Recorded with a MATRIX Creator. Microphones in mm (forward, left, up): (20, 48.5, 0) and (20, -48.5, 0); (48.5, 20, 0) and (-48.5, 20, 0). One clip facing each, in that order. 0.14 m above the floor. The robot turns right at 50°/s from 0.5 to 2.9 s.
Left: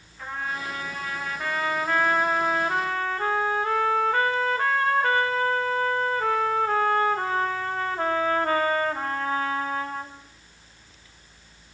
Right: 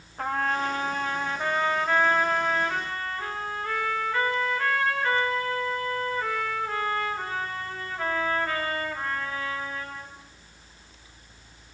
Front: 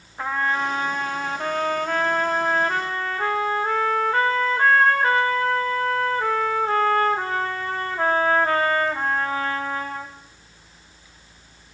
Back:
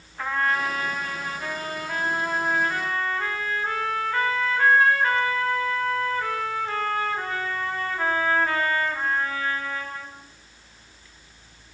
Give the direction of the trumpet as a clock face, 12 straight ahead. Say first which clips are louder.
Right 6 dB, front 1 dB; 2 o'clock.